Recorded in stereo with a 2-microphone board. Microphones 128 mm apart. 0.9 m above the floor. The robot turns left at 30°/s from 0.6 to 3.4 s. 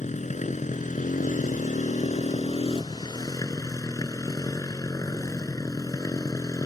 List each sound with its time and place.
0.0 s a motorcycle: 110° left; by 6.7 s 30° left